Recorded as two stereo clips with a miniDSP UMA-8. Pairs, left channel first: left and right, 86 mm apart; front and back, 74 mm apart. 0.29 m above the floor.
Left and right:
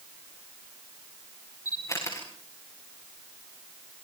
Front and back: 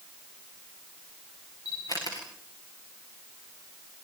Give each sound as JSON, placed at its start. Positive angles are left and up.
{"t": 1.6, "sound": "a camera shutter", "azimuth_deg": 35, "distance_m": 8.0}